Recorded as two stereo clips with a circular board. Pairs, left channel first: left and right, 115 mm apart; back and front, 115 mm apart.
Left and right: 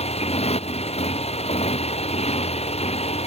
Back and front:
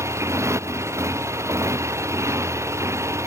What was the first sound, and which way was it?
A motorcycle, 65° left.